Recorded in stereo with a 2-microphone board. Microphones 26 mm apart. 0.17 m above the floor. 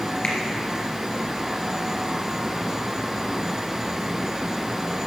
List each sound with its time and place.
0.2 s a finger snap: 45° left (ahead or behind), 3 m